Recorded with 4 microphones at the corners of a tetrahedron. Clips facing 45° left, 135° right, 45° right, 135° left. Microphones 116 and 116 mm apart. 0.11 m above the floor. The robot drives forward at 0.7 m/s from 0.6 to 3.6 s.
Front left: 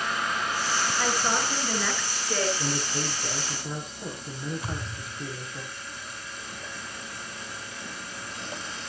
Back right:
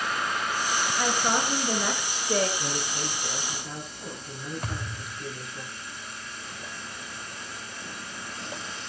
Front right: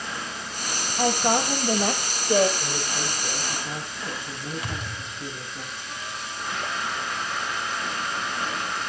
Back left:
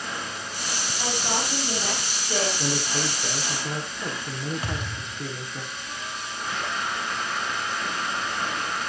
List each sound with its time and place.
1.0 s a woman speaking: 55° right, 3 m; by 2.5 s 85° right, 2.5 m
2.6 s a man speaking: 100° left, 6.5 m; by 5.6 s 110° left, 6.5 m
4.6 s a thud: 175° right, 7.5 m